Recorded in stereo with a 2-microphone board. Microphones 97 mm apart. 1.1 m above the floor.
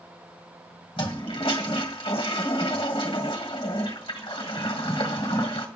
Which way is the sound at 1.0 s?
65° left (ahead or behind).